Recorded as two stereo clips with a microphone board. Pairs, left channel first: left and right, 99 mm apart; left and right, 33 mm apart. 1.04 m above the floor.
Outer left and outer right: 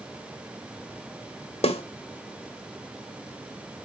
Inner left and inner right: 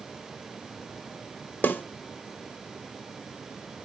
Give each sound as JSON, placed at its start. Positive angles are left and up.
{"t": 1.6, "sound": "a snare drum", "side_deg": 75, "distance_m": 1.4}